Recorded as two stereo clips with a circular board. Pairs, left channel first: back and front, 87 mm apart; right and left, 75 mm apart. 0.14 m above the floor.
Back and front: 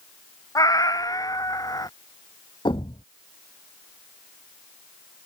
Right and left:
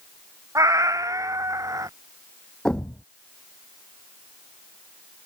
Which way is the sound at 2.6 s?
170° right.